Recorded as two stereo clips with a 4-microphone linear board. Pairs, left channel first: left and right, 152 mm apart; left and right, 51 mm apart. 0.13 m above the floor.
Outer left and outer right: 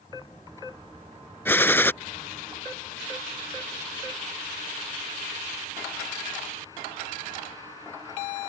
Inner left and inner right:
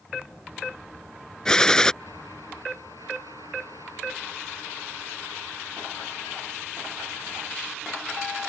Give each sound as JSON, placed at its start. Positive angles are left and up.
{"t": 1.4, "sound": "a gunshot", "side_deg": 15}